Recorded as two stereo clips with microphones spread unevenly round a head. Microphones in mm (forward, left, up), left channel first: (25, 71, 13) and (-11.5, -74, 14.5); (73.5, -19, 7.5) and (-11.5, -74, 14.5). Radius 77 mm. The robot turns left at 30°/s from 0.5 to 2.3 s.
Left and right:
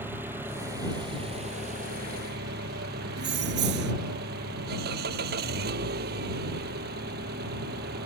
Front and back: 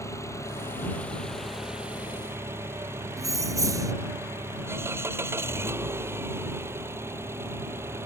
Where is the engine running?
25° right; by 8.1 s 80° right.